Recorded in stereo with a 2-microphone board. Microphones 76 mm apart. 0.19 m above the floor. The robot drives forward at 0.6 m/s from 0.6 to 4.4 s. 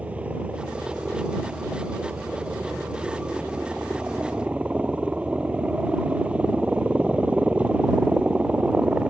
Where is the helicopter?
15° right (ahead or behind).